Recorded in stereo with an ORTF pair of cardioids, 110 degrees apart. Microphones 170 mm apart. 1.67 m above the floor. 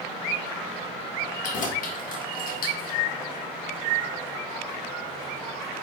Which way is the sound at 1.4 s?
50° left.